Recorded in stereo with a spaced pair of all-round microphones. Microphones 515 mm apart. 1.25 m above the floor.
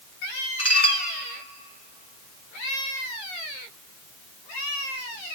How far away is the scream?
No scream in this recording.